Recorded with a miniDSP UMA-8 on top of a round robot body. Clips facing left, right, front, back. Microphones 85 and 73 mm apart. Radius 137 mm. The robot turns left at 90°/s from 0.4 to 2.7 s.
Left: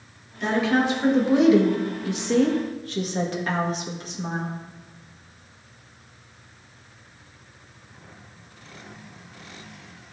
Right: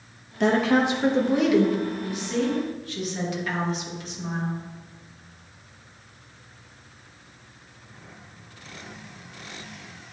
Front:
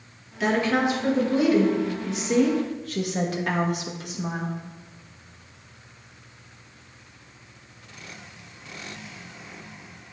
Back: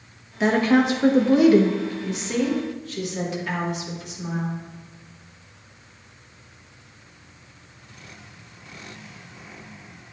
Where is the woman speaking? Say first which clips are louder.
Right 2 dB, back 4 dB; 115° right, 1.5 m; by 4.5 s 40° left, 1.5 m.